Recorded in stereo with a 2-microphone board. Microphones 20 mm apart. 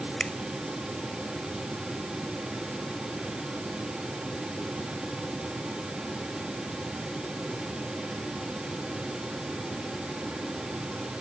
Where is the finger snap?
45° left (ahead or behind).